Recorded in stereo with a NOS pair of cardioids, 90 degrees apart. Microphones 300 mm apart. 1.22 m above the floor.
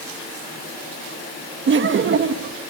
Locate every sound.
1.7 s laughter: 40° right, 1.3 m